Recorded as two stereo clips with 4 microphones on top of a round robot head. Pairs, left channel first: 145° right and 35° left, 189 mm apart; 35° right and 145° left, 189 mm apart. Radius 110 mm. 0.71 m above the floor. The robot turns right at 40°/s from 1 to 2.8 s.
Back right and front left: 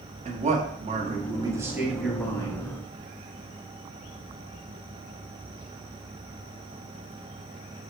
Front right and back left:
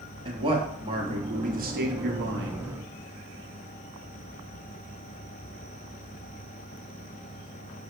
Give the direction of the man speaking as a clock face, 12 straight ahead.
9 o'clock.